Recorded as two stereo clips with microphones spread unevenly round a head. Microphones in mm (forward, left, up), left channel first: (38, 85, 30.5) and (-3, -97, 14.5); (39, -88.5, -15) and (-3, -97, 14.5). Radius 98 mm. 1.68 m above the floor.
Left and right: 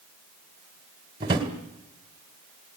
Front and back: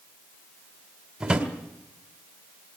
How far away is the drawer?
About 2 m.